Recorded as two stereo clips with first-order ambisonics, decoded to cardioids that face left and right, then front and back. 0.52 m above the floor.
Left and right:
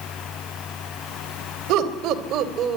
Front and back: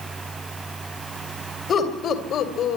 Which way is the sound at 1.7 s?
60° right.